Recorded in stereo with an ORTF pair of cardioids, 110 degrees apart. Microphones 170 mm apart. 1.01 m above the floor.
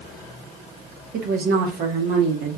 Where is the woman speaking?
70° right, 1.4 m; by 2.6 s 65° right, 2.5 m.